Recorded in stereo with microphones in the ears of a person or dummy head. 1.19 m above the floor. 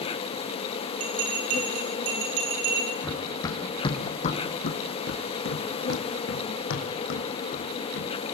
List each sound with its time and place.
0.0 s an insect: 25° left (ahead or behind), 0.8 m
1.0 s a bell: 45° right (ahead or behind), 8.5 m
3.0 s running footsteps: 10° left (ahead or behind), 3.5 m; by 8.1 s 65° left (ahead or behind), 5 m